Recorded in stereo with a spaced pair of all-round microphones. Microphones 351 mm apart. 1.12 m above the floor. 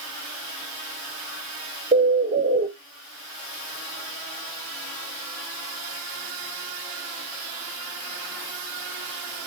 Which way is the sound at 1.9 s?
20° right (ahead or behind).